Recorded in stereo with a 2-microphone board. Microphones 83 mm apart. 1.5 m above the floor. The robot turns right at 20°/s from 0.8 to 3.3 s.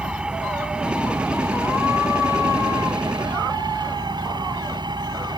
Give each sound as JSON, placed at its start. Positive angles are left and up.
{"t": 0.0, "sound": "an engine running", "azimuth_deg": -165}